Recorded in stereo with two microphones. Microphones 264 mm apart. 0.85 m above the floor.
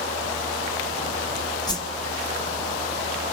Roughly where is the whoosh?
Centre.